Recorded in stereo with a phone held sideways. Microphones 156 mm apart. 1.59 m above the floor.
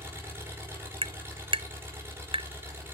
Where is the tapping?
35° right (ahead or behind), 0.5 m.